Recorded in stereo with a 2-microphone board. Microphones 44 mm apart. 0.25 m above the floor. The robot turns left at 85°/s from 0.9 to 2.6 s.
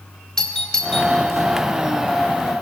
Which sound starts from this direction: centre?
A doorbell, at 0.4 s.